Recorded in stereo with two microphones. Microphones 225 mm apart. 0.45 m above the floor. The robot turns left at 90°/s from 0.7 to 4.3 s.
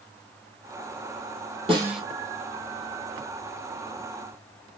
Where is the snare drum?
25° right (ahead or behind), 2.5 m; by 2.0 s 5° left (ahead or behind), 2.5 m.